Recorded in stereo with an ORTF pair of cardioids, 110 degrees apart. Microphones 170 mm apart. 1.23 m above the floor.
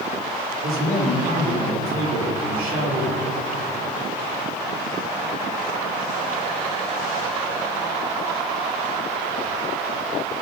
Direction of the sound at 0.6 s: 65° right.